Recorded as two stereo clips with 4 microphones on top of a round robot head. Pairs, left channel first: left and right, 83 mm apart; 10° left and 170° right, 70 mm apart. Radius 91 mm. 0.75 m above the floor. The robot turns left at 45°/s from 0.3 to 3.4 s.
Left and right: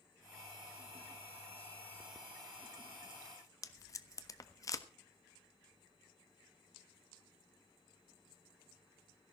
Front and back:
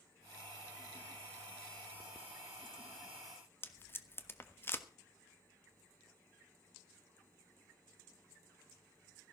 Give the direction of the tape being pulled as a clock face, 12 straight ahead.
10 o'clock.